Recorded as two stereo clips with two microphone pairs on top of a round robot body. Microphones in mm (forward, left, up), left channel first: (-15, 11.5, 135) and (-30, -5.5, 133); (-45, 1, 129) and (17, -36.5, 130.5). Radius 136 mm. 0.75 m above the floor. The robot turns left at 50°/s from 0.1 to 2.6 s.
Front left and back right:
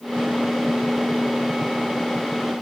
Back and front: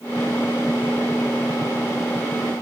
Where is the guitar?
I don't hear a guitar.